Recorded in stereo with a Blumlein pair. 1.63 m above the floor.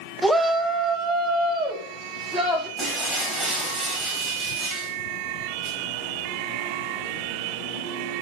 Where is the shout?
5° right, 0.8 m; by 2.7 s 30° right, 3.5 m.